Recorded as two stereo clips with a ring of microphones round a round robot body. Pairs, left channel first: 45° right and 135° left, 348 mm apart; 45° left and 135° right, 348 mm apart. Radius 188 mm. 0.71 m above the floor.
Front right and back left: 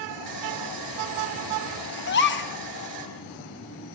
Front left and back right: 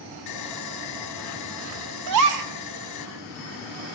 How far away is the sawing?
About 4.5 m.